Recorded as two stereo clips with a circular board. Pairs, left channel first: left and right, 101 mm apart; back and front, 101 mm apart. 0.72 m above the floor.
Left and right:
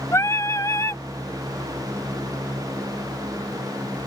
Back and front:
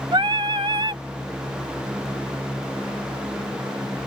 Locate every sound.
0.1 s singing: 30° left